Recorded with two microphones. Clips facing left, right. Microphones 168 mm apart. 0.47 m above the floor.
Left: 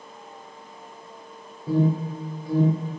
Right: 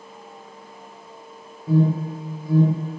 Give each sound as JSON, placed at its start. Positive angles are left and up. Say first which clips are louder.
{"t": 1.7, "sound": "an alarm", "louder": "right 2 dB", "side_deg": 30, "distance_m": 0.9}